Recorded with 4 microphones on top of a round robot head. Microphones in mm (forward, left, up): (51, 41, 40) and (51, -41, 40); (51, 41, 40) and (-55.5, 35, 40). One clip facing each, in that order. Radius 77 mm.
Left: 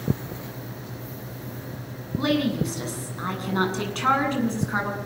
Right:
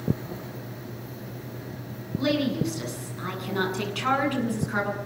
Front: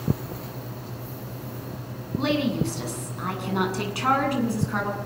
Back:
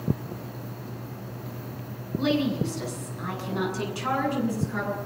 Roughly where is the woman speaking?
Ahead left.